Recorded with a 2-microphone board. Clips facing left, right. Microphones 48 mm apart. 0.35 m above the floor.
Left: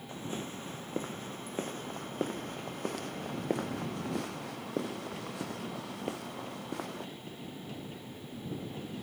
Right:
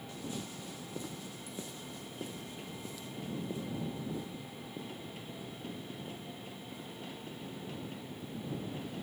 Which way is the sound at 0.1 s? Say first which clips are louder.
Left 4 dB; 35° left (ahead or behind).